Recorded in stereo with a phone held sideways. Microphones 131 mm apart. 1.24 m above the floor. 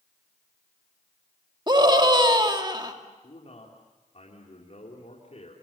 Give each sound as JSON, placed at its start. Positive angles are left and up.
{"t": 1.7, "sound": "a scream", "side_deg": -35, "distance_m": 2.5}
{"t": 3.2, "sound": "a man speaking", "side_deg": 55, "distance_m": 3.5}